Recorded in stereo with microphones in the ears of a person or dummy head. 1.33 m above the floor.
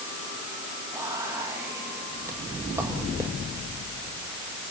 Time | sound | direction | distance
0.9 | whispering | 15° right (ahead or behind) | 1.4 m